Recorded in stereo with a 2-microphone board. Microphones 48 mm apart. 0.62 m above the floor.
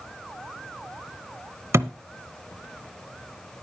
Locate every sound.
1.7 s a thud: 70° right (ahead or behind), 0.7 m